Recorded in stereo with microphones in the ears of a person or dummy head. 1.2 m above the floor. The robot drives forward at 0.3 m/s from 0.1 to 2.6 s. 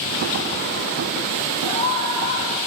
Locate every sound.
1.6 s a scream: 25° left (ahead or behind), 9.5 m